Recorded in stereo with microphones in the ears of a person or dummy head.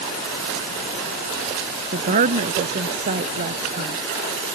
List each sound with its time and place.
1.9 s a woman speaking: 45° right (ahead or behind); by 4.0 s 50° right (ahead or behind)